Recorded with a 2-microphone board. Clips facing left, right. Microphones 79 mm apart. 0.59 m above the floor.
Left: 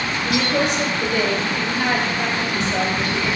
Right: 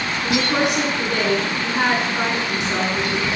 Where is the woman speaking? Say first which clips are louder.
Right 1 dB; 75° right (ahead or behind), 8 m.